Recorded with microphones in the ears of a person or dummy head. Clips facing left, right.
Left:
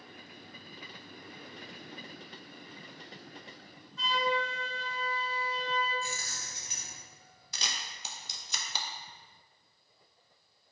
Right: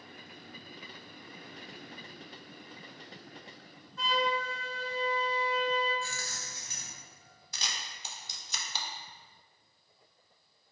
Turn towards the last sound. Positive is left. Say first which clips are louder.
# left 1 dB
turn(degrees=60)  # may be behind; listen again after turning